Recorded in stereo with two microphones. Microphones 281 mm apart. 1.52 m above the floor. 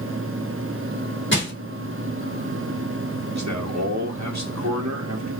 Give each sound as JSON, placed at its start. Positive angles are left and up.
{"t": 1.3, "sound": "crushing", "side_deg": 40, "distance_m": 2.0}
{"t": 3.3, "sound": "a man speaking", "side_deg": -70, "distance_m": 1.7}